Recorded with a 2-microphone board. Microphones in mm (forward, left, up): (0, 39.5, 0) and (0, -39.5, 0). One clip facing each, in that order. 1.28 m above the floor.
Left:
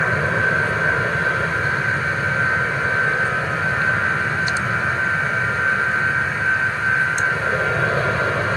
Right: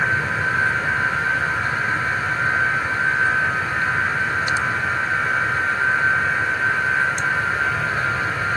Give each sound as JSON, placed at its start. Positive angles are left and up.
{"t": 0.0, "sound": "an aircraft", "side_deg": 70}